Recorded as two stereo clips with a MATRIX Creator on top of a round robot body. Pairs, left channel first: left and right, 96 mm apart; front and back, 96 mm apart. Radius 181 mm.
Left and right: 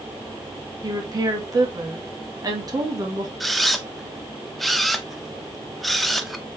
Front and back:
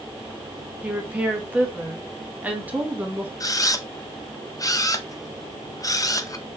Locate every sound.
0.8 s a woman speaking: 110° right, 1.3 m
3.4 s a camera shutter: straight ahead, 0.7 m